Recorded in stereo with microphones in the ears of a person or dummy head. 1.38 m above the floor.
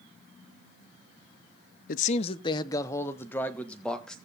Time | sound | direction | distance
1.9 | a man speaking | 50° left (ahead or behind) | 0.6 m